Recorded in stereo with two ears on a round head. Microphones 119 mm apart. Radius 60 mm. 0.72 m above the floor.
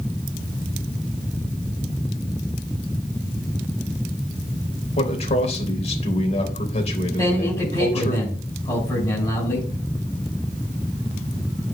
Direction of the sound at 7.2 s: 25° left (ahead or behind).